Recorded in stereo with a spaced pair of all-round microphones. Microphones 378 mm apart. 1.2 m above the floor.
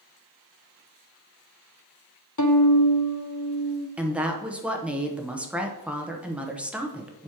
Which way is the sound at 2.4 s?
50° left (ahead or behind).